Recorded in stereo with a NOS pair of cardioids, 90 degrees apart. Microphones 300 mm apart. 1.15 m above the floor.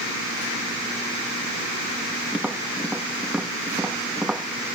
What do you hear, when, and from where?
2.3 s tapping: 5° right